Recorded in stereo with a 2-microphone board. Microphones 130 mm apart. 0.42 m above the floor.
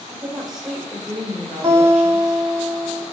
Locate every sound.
0.1 s a woman speaking: 5° right (ahead or behind), 1.7 m
1.6 s a guitar: 25° right (ahead or behind), 1.1 m